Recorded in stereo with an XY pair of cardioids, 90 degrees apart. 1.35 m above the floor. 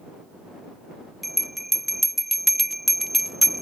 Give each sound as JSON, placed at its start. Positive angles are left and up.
{"t": 1.2, "sound": "a bell", "azimuth_deg": -5}